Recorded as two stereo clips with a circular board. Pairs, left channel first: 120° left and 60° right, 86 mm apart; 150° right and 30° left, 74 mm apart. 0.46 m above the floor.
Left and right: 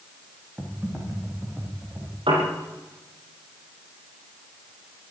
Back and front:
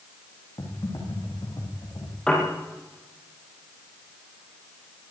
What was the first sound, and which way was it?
Typing on a keyboard, 130° right.